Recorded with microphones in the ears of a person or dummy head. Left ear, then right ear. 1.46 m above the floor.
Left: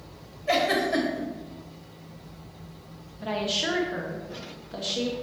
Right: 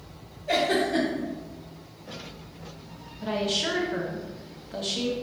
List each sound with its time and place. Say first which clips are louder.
0.5 s a giggle: left 1 dB; 50° left (ahead or behind), 1.2 m
3.2 s a woman speaking: even; 10° left (ahead or behind), 0.6 m